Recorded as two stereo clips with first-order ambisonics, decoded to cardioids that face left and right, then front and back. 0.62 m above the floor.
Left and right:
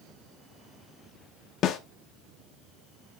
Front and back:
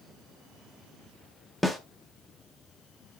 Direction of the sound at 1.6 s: 85° left.